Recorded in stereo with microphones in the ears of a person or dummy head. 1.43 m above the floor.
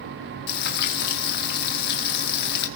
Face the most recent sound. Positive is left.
turn(degrees=50)  # may be behind; listen again after turning